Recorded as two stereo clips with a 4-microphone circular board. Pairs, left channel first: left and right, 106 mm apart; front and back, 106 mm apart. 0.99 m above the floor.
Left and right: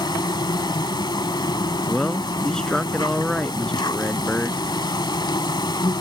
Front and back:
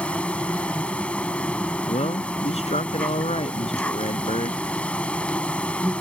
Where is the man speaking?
5° left.